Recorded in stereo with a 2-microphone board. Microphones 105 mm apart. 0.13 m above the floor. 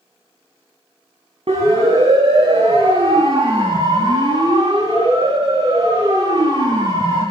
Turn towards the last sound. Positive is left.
turn(degrees=-40)  # may be behind; listen again after turning